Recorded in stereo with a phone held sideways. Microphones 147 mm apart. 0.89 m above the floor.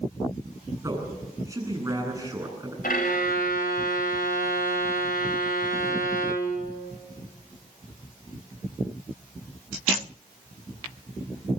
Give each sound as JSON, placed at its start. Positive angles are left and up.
{"t": 0.8, "sound": "a man speaking", "side_deg": -20, "distance_m": 9.0}
{"t": 2.8, "sound": "a violin", "side_deg": 80, "distance_m": 3.0}